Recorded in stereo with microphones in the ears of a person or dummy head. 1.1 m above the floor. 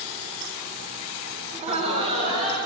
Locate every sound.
1.5 s laughter: 35° right (ahead or behind), 1.2 m; by 2.6 s 30° right (ahead or behind), 2.5 m